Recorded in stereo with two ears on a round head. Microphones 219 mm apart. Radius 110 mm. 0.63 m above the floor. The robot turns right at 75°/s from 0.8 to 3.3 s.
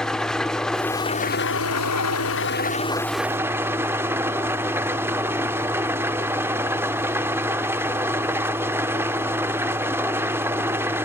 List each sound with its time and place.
0.0 s an engine running: 5° left, 0.9 m; by 11.0 s 170° right, 0.9 m